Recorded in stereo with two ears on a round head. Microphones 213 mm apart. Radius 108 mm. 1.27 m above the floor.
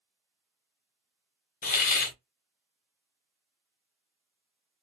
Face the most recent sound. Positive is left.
turn(degrees=35)  # may be behind; listen again after turning